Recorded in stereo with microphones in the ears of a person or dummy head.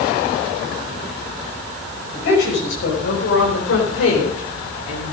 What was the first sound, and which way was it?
A woman speaking, 60° left (ahead or behind).